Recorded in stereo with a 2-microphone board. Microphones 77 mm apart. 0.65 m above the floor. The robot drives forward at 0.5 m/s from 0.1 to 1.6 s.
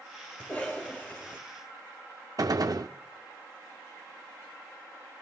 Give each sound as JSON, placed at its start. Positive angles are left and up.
{"t": 0.4, "sound": "a cough", "side_deg": 25, "distance_m": 4.0}
{"t": 2.4, "sound": "a gunshot", "side_deg": -55, "distance_m": 0.6}